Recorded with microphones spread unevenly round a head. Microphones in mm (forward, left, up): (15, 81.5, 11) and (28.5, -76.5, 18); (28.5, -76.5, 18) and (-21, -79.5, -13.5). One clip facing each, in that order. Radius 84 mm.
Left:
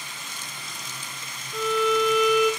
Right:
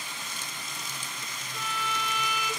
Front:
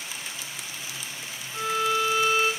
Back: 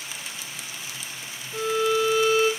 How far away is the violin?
About 1.0 m.